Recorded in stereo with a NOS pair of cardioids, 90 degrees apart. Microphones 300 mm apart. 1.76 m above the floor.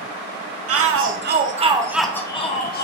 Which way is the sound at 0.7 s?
55° right.